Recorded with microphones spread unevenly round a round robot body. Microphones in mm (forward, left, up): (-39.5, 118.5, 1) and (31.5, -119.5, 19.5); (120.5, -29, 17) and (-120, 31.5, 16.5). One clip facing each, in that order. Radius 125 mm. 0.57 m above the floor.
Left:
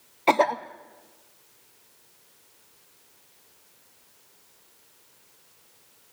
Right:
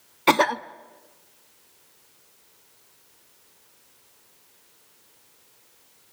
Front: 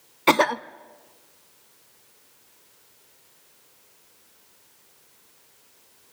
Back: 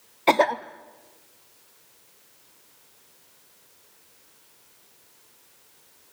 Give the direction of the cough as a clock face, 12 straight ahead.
2 o'clock.